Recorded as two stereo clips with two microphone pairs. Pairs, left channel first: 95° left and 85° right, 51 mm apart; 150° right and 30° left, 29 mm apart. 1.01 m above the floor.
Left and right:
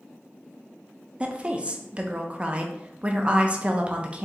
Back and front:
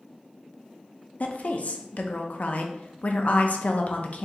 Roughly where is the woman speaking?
Behind right.